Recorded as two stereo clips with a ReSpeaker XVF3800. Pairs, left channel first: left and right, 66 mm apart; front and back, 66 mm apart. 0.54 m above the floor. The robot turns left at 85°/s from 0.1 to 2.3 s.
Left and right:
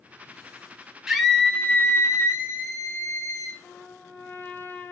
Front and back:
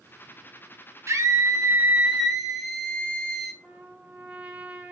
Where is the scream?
165° right, 0.9 m; by 3.5 s 90° left, 0.9 m.